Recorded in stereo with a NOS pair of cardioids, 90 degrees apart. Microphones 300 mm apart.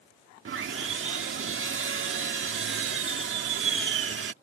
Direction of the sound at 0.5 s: 40° right.